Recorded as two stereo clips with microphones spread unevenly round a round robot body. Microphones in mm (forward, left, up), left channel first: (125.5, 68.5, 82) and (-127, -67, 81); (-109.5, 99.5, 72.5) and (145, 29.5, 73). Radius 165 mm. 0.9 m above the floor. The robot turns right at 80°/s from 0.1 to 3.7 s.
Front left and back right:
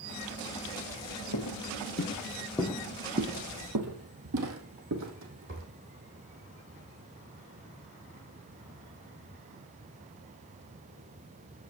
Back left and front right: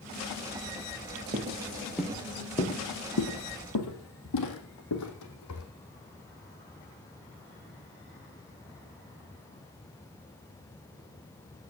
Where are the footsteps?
35° left, 1.3 m; by 5.7 s 160° left, 2.5 m.